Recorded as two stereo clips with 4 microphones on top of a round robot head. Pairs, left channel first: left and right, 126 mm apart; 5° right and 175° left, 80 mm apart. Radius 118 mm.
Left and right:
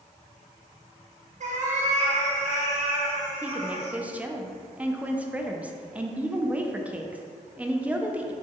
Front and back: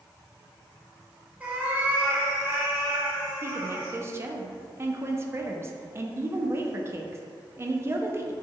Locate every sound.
1.4 s a cat meowing: 110° right, 0.6 m; by 3.9 s 120° right, 2.5 m
3.4 s a woman speaking: 160° right, 0.6 m